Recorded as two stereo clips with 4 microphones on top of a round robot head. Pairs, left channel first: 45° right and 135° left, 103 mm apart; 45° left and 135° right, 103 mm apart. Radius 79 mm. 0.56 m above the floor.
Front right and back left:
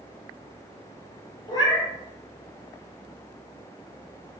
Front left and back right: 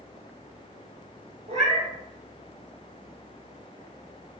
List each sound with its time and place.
1.5 s a cat meowing: 100° right, 0.5 m